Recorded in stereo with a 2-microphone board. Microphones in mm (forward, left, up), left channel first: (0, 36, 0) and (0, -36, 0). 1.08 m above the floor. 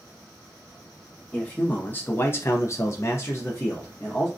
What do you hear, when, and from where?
1.3 s a man speaking: 20° left (ahead or behind), 1.0 m